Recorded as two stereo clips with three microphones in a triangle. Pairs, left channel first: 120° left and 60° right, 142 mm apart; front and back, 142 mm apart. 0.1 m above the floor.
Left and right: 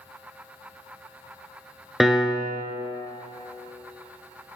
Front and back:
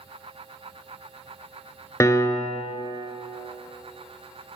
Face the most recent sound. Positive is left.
turn(degrees=25)